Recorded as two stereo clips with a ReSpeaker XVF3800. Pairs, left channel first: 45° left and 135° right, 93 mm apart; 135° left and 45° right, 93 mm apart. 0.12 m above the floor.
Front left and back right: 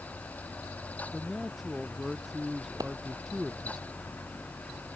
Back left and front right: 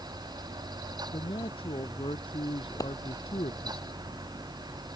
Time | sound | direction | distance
1.1 | a man speaking | 135° left | ?
2.8 | a clap | 175° right | ?